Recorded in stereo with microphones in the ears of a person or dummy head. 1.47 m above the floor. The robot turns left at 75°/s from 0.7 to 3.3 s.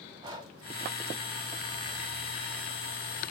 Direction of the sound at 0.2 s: 20° right (ahead or behind).